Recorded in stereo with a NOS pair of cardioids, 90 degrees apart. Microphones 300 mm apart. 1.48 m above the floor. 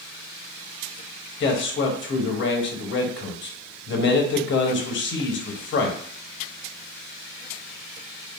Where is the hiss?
No hiss in this recording.